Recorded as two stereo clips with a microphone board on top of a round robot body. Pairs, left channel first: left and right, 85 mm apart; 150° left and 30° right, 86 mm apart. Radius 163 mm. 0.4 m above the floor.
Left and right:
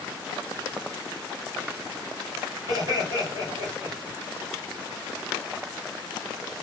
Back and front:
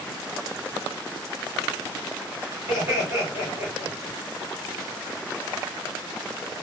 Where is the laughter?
80° right, 2 m.